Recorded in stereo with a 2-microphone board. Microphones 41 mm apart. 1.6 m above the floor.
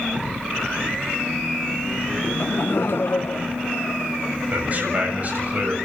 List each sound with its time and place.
2.2 s laughter: 35° left (ahead or behind), 0.6 m; by 4.4 s 75° left (ahead or behind), 1.8 m
4.5 s a man speaking: 40° right (ahead or behind), 7.5 m